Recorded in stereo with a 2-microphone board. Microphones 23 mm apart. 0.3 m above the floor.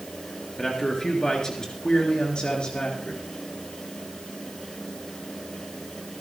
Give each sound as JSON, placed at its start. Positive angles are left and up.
{"t": 0.6, "sound": "a man speaking", "side_deg": 20, "distance_m": 4.0}